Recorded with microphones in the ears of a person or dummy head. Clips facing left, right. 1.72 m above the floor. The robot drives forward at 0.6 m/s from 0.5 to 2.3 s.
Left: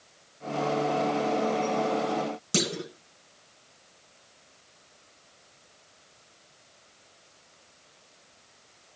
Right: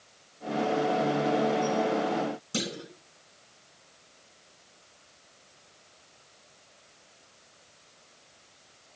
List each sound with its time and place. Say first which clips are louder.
2.5 s a clunk: left 5 dB; 80° left, 2 m